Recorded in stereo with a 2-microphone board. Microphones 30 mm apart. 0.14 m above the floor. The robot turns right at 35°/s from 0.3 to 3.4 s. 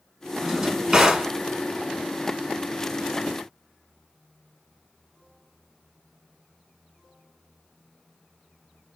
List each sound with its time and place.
0.4 s a drawer: 20° right (ahead or behind), 0.6 m; by 1.3 s 15° right (ahead or behind), 0.6 m